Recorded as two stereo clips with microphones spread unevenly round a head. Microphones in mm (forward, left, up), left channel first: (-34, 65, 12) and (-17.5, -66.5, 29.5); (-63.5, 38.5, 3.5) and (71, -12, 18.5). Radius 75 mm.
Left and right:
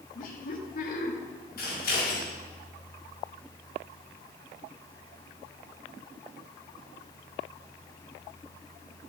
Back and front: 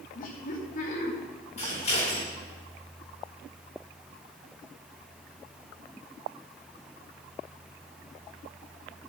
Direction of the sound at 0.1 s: 125° left.